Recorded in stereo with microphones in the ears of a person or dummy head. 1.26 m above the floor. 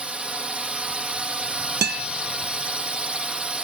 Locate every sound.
0.0 s a drone: 5° right (ahead or behind)
1.8 s a guitar: 55° right (ahead or behind)